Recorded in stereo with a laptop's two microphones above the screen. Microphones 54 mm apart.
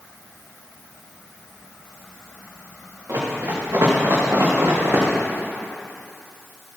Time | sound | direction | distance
3.1 | running footsteps | 75° right (ahead or behind) | 4.5 m